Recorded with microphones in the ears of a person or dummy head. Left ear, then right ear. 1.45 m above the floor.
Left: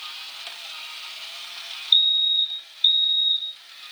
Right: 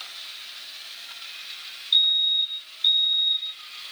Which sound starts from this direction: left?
A fire alarm, at 1.9 s.